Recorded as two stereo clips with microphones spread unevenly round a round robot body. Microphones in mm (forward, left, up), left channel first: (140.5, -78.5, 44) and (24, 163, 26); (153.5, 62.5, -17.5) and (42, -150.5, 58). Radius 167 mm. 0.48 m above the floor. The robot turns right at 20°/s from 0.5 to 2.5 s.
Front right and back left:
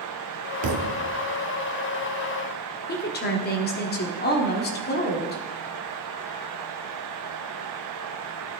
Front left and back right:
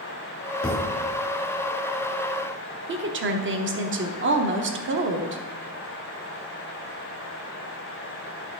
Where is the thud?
130° left, 0.8 m; by 1.0 s 140° left, 0.8 m.